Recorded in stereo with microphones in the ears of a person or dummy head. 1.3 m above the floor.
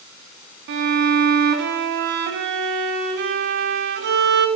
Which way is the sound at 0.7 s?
65° right (ahead or behind).